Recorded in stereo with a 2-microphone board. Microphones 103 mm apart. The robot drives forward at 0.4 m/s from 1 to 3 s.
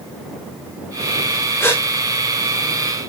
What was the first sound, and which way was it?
A gasp, 25° left (ahead or behind).